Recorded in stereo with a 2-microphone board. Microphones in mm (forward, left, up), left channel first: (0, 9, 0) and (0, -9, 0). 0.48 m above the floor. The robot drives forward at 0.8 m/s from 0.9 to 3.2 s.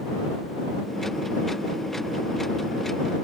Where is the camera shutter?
No camera shutter in this recording.